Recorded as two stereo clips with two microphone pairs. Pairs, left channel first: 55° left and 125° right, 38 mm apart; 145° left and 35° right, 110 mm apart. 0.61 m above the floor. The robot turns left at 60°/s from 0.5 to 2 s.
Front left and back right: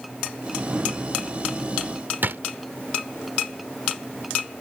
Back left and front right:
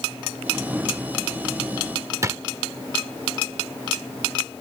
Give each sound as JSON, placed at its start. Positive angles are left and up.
{"t": 2.2, "sound": "a drawer", "azimuth_deg": -100}